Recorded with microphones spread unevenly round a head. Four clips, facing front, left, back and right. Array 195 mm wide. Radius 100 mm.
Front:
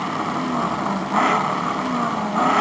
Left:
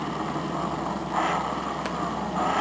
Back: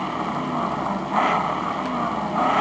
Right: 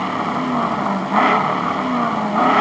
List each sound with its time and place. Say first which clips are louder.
0.0 s an engine running: right 9 dB, front 2 dB; 75° right